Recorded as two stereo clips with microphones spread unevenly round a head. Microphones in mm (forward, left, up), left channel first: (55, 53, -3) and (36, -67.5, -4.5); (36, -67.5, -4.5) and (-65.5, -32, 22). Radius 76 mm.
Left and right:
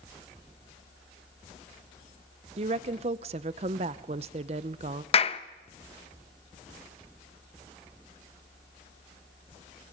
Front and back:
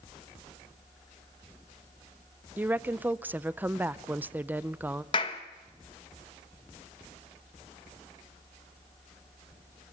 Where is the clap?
40° left, 0.8 m.